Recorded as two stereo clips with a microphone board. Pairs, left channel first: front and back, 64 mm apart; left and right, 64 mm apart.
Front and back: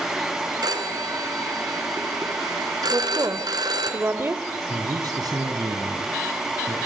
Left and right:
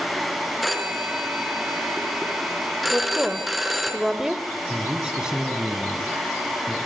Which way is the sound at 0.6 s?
Straight behind.